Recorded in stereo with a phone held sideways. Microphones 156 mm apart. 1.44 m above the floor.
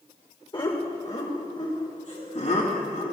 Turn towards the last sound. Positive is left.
turn(degrees=60)  # may be behind; listen again after turning